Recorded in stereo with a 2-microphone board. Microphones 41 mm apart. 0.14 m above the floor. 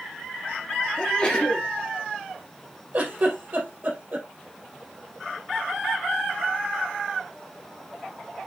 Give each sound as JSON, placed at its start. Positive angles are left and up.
{"t": 1.0, "sound": "a sneeze", "side_deg": 20, "distance_m": 2.5}
{"t": 2.9, "sound": "a giggle", "side_deg": -45, "distance_m": 3.5}